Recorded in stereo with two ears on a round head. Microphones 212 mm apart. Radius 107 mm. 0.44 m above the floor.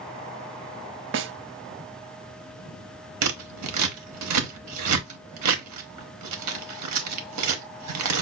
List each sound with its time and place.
1.1 s a snare drum: 55° right (ahead or behind), 0.5 m
3.2 s scissors: 80° right, 0.9 m